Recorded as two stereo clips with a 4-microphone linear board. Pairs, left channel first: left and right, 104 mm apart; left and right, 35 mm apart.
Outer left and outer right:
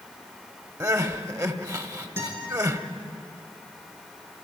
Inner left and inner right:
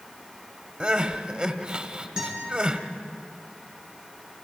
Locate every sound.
0.8 s crying: 35° right (ahead or behind), 1.2 m
2.2 s a guitar: 20° right (ahead or behind), 7.5 m